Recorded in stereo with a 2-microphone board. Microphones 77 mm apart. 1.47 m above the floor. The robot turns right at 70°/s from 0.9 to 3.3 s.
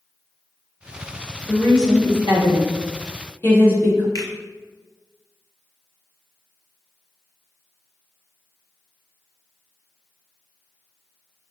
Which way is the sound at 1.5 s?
30° left (ahead or behind).